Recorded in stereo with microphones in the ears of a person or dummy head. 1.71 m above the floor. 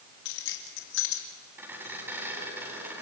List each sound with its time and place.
0.2 s keys jangling: 75° left (ahead or behind), 3 m
1.6 s a squeak: 10° right (ahead or behind), 8.5 m